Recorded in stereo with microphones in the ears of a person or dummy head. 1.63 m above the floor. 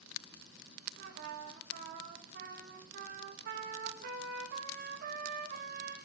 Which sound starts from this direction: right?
A trumpet, at 1.0 s.